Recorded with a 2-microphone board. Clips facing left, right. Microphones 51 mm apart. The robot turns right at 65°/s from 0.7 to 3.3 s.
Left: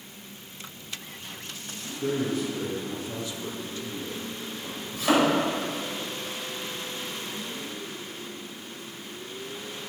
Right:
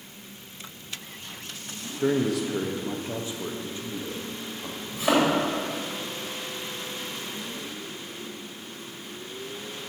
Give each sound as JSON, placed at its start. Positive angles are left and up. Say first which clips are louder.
{"t": 2.0, "sound": "a man speaking", "louder": "right 3 dB", "azimuth_deg": -110, "distance_m": 1.0}
{"t": 4.9, "sound": "a thud", "louder": "even", "side_deg": -20, "distance_m": 3.5}